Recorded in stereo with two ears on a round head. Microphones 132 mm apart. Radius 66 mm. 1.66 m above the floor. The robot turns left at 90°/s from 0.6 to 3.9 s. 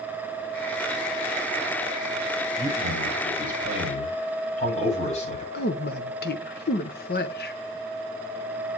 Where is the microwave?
No microwave in this recording.